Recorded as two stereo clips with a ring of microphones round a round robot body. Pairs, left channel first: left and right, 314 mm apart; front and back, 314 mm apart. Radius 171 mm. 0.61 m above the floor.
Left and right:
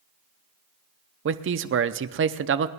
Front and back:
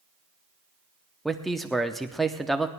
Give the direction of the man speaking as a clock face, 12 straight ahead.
3 o'clock.